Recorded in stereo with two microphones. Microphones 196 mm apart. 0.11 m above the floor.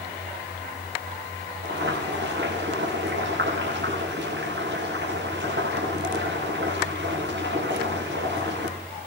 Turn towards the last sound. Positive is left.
turn(degrees=-70)  # may be behind; listen again after turning